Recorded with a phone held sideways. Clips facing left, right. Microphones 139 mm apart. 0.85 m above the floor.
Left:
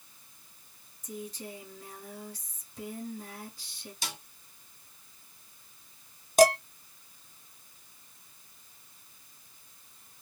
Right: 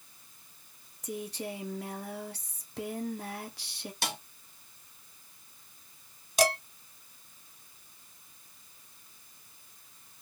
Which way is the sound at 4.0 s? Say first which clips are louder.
Right 6 dB; 60° right (ahead or behind).